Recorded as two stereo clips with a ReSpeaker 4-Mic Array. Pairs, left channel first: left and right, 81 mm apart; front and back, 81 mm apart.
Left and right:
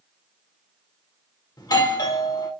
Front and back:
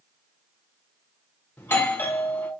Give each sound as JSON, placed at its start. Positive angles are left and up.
{"t": 1.6, "sound": "a doorbell", "azimuth_deg": 60, "distance_m": 1.0}